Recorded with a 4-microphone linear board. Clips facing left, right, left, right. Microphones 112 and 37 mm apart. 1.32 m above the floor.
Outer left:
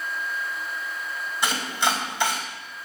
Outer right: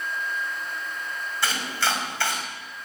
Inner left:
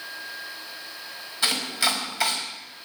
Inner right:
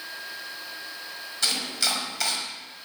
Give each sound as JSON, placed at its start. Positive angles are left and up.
{"t": 1.4, "sound": "chopping", "side_deg": 15, "distance_m": 4.5}